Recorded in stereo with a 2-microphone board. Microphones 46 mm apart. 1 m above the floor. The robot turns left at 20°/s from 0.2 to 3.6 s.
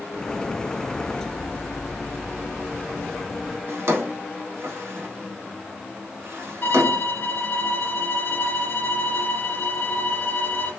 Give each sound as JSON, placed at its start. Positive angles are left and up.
{"t": 3.7, "sound": "a drawer", "side_deg": -70, "distance_m": 1.1}
{"t": 6.6, "sound": "a violin", "side_deg": 55, "distance_m": 1.3}